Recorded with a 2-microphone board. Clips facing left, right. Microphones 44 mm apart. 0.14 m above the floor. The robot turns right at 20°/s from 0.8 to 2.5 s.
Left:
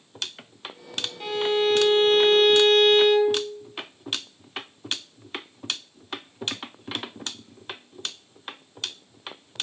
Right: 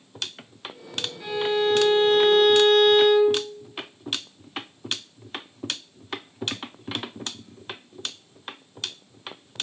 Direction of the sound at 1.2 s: 65° left (ahead or behind).